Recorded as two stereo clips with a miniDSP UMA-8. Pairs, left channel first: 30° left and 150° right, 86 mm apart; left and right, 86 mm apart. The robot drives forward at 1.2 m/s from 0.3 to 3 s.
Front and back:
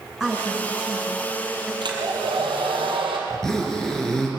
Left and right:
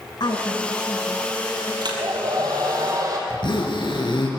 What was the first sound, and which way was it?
A woman speaking, 120° left.